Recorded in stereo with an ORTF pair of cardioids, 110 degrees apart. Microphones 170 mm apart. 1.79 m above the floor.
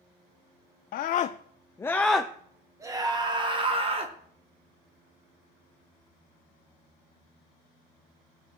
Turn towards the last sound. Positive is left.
turn(degrees=-35)